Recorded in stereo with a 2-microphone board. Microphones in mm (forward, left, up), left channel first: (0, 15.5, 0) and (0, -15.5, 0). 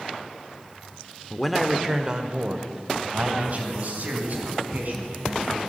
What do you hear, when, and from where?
1.3 s a man speaking: 15° left (ahead or behind), 0.8 m; by 5.6 s 60° right (ahead or behind), 4 m